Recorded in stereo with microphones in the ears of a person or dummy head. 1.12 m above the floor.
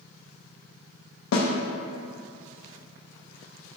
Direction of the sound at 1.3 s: 70° left (ahead or behind).